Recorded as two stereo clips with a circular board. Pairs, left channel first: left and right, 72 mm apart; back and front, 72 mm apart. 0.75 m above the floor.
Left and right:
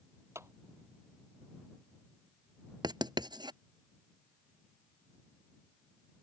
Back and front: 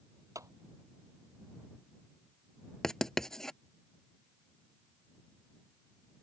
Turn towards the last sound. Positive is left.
turn(degrees=-95)